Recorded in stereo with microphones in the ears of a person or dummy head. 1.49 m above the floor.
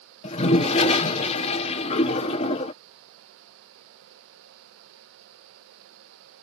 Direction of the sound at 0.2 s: 30° left (ahead or behind).